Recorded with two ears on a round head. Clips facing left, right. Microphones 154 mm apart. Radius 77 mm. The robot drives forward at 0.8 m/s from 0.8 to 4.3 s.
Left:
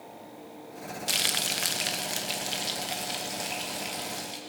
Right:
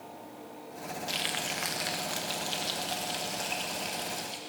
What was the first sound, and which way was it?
Frying, 65° left (ahead or behind).